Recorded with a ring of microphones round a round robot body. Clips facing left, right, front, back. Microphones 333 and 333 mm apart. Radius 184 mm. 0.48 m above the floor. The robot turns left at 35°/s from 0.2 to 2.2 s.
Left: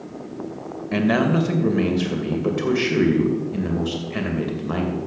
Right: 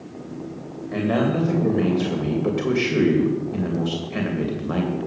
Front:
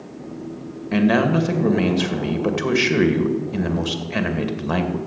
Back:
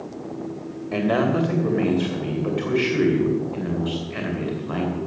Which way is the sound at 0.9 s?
50° left.